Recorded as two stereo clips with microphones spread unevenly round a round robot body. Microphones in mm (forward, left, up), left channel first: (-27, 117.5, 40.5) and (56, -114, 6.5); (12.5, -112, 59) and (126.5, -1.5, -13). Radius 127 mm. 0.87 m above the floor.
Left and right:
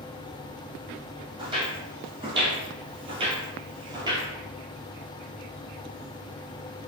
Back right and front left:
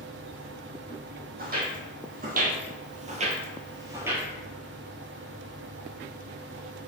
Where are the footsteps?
5° left, 1.6 m; by 4.3 s 140° right, 0.9 m.